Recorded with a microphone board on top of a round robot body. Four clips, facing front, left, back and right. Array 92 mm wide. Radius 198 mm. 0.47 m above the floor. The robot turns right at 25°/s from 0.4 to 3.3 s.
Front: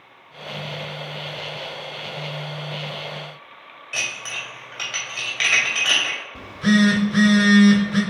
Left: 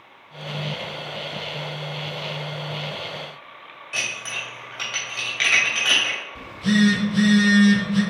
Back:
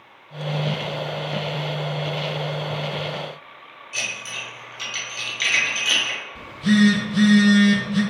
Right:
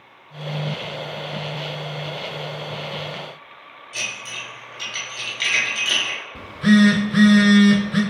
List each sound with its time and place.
3.9 s dishes clattering: 40° left, 2.5 m
6.3 s a phone buzzing: 50° right, 1.0 m